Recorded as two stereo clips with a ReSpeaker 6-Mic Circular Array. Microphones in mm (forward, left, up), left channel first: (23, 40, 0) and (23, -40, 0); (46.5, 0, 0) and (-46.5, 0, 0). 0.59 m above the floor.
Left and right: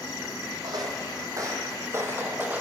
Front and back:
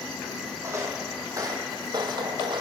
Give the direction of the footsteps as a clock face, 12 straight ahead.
4 o'clock.